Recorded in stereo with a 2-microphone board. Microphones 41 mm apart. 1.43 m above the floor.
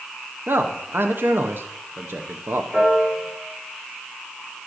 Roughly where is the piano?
Right.